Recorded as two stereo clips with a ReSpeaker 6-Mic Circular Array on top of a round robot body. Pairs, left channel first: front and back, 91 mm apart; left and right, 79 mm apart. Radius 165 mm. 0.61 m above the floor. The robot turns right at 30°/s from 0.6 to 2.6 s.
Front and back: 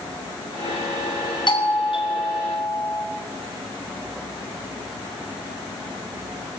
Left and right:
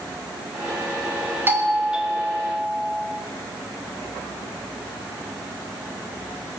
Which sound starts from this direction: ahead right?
A doorbell, at 1.5 s.